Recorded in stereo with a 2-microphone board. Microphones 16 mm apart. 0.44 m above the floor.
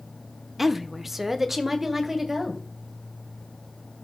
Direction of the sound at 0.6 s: 20° right (ahead or behind).